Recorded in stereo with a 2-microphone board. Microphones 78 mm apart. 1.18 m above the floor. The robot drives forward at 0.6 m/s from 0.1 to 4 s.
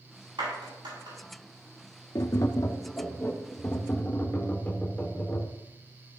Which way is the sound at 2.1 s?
50° left (ahead or behind).